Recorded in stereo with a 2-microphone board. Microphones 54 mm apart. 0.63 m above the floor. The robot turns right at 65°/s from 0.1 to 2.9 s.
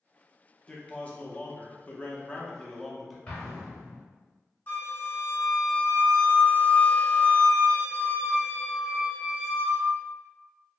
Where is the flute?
35° left (ahead or behind), 0.8 m.